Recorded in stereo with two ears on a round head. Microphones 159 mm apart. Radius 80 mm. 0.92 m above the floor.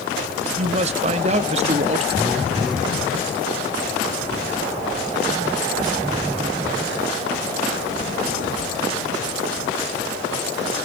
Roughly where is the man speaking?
Right.